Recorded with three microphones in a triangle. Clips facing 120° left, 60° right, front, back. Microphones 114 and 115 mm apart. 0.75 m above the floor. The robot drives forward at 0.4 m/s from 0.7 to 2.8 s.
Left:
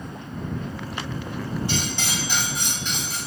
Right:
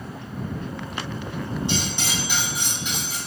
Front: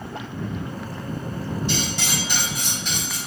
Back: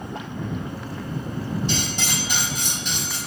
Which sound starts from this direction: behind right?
Cutlery clinking, at 1.7 s.